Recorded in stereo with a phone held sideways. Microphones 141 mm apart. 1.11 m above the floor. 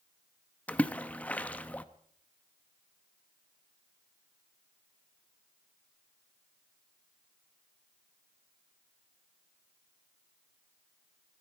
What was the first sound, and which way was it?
A splash, 10° left (ahead or behind).